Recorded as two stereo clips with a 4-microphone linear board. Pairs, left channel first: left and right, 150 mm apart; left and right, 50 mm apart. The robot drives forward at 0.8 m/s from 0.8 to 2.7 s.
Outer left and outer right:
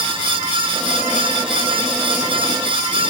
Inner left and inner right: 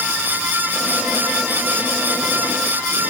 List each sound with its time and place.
Only background noise.